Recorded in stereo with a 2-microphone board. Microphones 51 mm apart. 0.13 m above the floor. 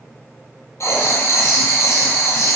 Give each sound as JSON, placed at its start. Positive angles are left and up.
{"t": 0.8, "sound": "writing", "side_deg": 70, "distance_m": 0.8}